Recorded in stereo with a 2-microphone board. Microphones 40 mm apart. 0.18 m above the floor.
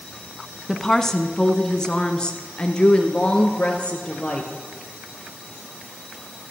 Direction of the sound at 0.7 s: 10° left (ahead or behind).